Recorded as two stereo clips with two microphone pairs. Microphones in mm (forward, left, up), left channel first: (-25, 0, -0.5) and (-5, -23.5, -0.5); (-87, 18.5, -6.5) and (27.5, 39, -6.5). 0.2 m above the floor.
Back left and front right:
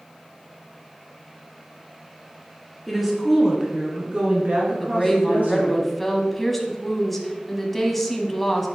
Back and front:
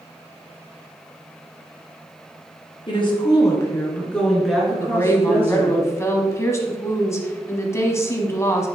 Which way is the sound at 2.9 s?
140° right.